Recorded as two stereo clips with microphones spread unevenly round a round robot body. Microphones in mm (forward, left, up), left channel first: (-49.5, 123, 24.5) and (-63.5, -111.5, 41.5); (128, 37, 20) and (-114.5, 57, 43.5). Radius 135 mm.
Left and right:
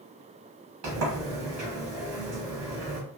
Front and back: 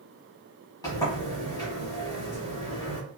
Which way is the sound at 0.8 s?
80° right.